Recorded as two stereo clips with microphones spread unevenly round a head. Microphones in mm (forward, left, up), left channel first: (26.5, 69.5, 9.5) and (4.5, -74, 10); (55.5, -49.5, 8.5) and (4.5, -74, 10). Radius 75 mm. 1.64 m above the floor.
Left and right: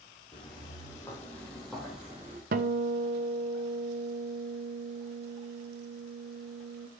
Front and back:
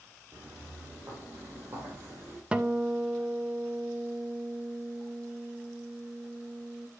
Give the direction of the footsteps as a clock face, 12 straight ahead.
7 o'clock.